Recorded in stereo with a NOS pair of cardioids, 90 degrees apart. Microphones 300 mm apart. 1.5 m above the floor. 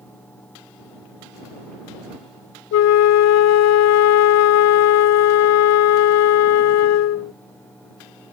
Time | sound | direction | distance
0.0 | a fan | 5° left | ?
2.7 | a flute | 60° left | ?